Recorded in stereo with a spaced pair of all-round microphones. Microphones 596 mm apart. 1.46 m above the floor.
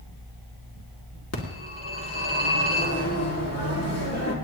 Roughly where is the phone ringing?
Left.